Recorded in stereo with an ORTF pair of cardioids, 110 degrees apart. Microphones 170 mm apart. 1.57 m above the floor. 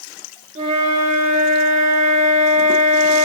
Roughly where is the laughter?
No laughter in this recording.